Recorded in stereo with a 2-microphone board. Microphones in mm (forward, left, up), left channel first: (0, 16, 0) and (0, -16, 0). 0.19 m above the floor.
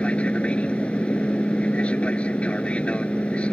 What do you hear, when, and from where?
0.0 s an aircraft: 40° left (ahead or behind)